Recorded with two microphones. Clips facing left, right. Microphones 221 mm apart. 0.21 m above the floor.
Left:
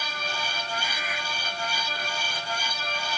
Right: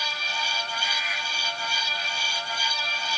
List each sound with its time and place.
Only background noise.